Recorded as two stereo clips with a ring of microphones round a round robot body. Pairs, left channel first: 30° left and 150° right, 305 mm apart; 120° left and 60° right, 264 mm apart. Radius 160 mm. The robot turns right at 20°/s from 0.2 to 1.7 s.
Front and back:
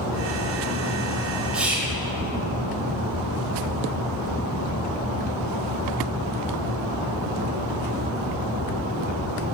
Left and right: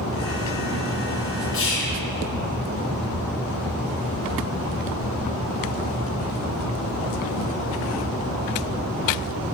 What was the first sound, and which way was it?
Whispering, 125° left.